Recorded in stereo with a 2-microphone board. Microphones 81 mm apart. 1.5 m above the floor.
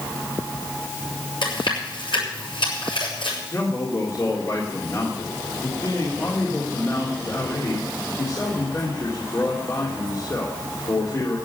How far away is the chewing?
About 9 m.